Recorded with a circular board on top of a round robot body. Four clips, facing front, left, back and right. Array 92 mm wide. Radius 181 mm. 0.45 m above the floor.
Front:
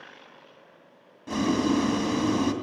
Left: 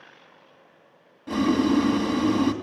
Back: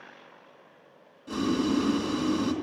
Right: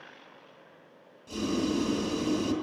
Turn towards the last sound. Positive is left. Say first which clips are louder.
# left 8 dB, front 2 dB
turn(degrees=50)